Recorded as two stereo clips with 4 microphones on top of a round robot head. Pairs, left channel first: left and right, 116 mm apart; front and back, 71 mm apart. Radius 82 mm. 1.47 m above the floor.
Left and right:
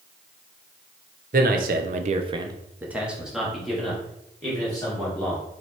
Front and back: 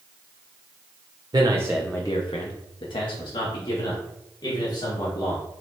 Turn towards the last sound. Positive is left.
turn(degrees=10)